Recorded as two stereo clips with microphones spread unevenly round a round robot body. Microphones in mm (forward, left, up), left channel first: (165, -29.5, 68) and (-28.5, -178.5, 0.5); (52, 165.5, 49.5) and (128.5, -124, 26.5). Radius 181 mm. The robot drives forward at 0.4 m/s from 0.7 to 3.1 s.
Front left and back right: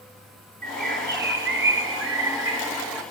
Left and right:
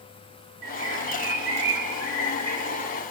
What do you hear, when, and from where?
0.6 s a bird: 90° right, 1.2 m; by 3.0 s 130° right, 1.6 m